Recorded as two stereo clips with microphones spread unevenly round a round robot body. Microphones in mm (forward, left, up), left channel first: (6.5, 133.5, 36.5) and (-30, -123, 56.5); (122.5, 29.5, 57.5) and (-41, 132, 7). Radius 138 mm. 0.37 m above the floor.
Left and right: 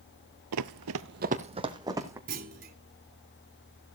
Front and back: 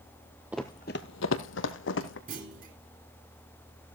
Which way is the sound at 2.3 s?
155° right.